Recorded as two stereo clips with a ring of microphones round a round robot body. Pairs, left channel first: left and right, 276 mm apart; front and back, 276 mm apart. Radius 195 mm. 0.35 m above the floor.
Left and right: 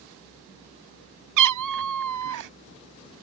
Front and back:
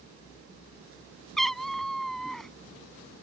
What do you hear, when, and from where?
1.4 s a cat meowing: 90° right